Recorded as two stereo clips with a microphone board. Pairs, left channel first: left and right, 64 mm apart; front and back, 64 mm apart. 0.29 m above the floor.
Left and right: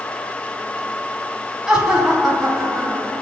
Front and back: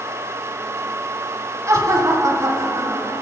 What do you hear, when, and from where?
1.7 s laughter: 170° right, 2.5 m